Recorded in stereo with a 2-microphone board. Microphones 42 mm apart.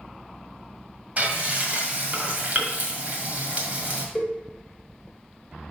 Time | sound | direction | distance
1.2 | frying | 40° right (ahead or behind) | 1.8 m
4.2 | a cowbell | 10° left (ahead or behind) | 1.8 m